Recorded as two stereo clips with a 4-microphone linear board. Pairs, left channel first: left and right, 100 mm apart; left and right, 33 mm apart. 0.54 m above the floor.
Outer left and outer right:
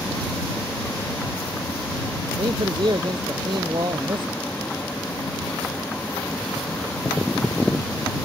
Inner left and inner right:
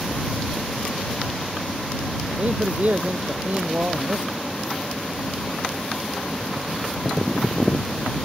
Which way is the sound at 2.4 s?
50° right (ahead or behind).